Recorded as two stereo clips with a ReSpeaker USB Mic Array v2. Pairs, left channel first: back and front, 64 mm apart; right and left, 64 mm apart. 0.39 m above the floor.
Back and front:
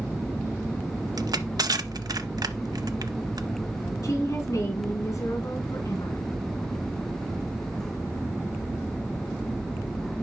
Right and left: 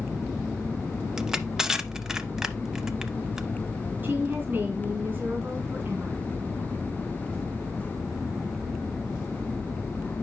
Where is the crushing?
10° left, 0.6 m.